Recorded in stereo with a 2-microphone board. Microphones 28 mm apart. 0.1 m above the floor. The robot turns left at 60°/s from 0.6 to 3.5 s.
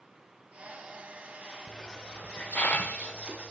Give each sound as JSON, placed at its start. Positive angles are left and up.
{"t": 1.7, "sound": "a hiss", "side_deg": 30, "distance_m": 0.8}